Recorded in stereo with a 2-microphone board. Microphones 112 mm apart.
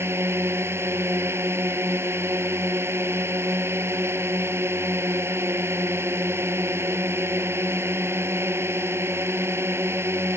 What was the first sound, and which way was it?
A drone, 20° right (ahead or behind).